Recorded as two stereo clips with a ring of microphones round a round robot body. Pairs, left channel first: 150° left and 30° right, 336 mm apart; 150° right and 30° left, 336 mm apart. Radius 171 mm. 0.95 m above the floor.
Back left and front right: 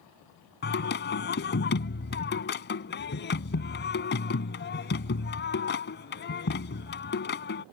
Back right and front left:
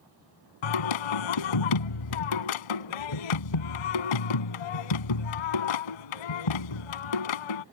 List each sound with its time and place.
0.6 s singing: 150° right